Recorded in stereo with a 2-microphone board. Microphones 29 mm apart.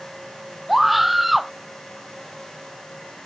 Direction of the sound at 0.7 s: 5° right (ahead or behind).